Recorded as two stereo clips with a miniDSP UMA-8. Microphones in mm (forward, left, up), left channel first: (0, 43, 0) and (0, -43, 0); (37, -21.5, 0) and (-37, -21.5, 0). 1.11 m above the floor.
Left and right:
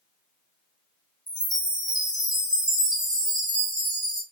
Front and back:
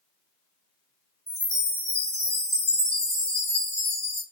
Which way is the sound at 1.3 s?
125° left.